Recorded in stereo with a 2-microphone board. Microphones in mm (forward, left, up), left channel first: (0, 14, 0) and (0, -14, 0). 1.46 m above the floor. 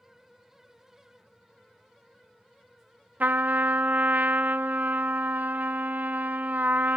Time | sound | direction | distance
3.2 | a trumpet | 80° right | 0.6 m